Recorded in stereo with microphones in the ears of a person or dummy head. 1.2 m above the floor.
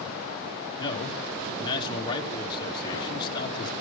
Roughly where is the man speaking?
Left.